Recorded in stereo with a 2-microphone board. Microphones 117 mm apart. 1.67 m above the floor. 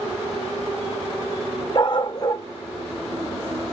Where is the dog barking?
40° left (ahead or behind), 1.6 m.